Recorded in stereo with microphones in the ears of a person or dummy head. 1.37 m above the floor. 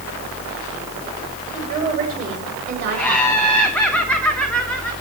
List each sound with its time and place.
1.5 s a woman speaking: 40° right (ahead or behind), 7 m; by 4.0 s 60° right (ahead or behind), 7.5 m
3.0 s laughter: 5° left (ahead or behind), 1.1 m